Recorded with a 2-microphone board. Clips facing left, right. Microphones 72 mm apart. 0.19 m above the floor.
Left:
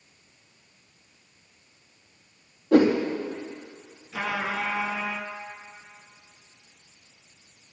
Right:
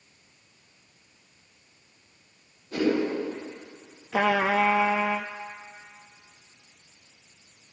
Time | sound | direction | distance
2.7 | a whoosh | 85° left | 5 m
4.1 | a trumpet | 85° right | 0.7 m